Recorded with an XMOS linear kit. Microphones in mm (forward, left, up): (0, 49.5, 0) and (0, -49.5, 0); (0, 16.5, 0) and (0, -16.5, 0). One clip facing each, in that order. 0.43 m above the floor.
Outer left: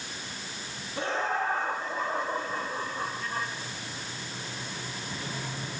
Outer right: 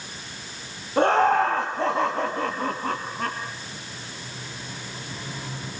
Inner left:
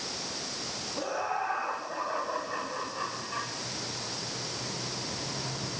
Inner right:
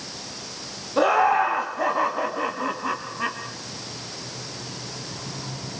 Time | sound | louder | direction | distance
1.0 | laughter | outer right 11 dB, inner right 14 dB | 55° right (ahead or behind) | 3.5 m